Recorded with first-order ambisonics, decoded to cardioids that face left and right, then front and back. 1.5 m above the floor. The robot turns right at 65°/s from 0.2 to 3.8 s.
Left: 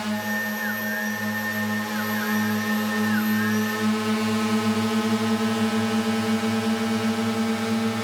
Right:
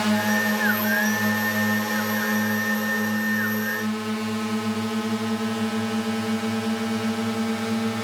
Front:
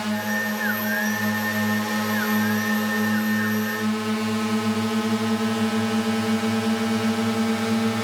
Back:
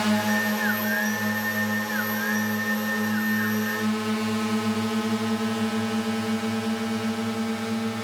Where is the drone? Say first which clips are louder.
Right 4 dB, back 1 dB; 120° right; by 8.0 s 5° left.